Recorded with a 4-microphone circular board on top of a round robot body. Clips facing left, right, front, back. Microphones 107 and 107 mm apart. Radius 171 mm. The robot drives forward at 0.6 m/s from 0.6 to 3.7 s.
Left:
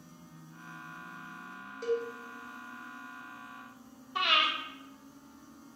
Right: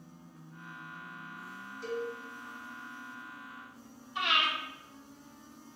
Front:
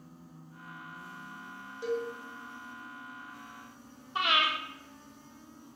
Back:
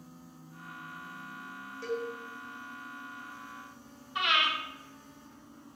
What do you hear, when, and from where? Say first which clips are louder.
1.8 s a cowbell: left 5 dB, front 2 dB; 70° left, 3 m; by 2.1 s 75° left, 3 m
4.2 s breathing: left 1 dB, front 1 dB; 55° left, 0.6 m